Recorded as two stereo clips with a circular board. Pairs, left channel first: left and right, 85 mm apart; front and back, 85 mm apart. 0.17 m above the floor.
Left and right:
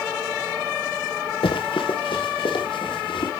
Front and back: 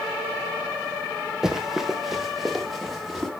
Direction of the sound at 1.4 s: 95° left.